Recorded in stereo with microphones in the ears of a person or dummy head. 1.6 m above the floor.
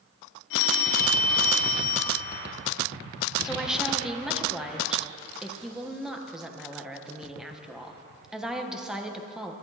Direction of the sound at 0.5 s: 65° left (ahead or behind).